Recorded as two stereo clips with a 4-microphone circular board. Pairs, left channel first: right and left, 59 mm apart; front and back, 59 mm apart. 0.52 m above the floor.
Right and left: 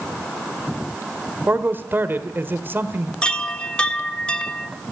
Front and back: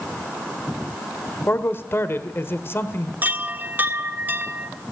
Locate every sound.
1.5 s a man speaking: 40° left, 1.4 m
3.2 s a chime: 155° right, 1.2 m